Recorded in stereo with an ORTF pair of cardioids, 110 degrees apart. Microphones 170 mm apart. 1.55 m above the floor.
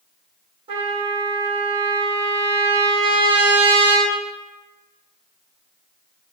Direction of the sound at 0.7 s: 35° right.